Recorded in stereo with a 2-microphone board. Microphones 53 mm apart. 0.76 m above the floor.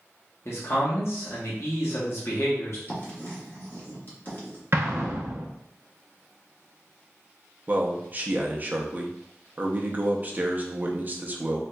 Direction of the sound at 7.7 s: 35° right (ahead or behind).